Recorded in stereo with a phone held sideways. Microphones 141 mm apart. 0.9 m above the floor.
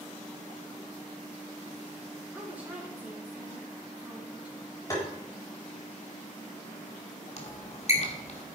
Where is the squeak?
50° left (ahead or behind), 1.9 m.